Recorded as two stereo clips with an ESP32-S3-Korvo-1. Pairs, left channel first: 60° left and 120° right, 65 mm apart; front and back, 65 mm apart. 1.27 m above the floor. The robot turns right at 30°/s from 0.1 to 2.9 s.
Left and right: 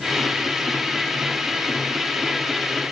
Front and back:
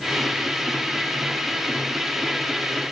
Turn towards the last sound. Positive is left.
No sound to turn to.